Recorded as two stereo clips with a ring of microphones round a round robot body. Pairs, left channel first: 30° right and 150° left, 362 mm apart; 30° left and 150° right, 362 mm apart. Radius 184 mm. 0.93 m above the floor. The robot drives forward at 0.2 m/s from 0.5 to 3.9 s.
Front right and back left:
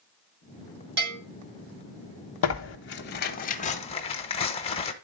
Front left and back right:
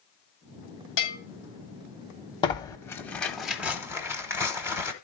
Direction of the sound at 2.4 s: 40° right.